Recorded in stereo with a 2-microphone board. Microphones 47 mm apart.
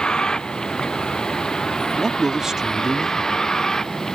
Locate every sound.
0.0 s a vehicle: 15° left (ahead or behind); by 4.2 s 10° left (ahead or behind)
2.0 s a man speaking: 10° right (ahead or behind)